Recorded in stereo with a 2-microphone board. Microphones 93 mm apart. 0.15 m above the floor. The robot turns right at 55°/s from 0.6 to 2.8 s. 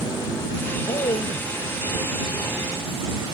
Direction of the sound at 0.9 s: 65° left.